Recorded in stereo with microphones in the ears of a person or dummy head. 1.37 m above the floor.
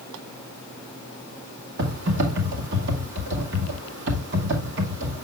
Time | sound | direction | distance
1.8 | typing on a keyboard | 65° right (ahead or behind) | 2.5 m